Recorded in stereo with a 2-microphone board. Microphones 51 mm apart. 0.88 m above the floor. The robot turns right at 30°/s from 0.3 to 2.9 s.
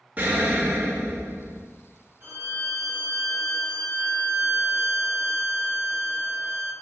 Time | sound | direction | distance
0.2 | an explosion | 150° right | 0.6 m
2.2 | a violin | 50° right (ahead or behind) | 0.7 m